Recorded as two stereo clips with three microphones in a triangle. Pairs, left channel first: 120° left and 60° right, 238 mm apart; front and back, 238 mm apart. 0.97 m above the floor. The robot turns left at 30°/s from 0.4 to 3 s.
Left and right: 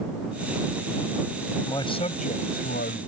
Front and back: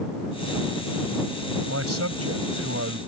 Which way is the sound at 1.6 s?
165° right.